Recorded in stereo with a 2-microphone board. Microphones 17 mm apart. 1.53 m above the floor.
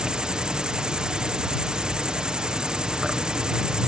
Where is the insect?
55° right (ahead or behind).